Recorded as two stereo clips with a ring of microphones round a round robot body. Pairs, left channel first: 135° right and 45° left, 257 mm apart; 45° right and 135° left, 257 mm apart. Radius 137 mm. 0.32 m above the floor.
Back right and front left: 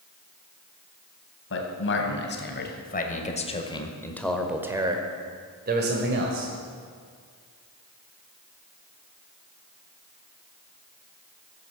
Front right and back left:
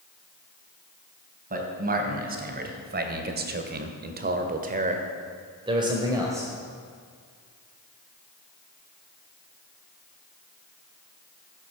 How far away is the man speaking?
About 2.5 m.